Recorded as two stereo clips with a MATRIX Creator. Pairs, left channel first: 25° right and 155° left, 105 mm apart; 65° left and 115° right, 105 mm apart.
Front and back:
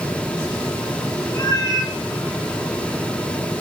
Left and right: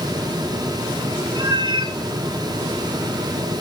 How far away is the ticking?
No ticking in this recording.